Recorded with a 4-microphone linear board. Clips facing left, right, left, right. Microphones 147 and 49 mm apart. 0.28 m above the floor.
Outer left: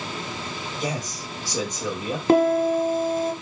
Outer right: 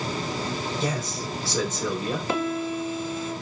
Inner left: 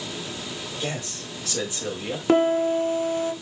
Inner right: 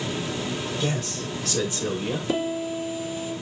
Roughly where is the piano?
Left.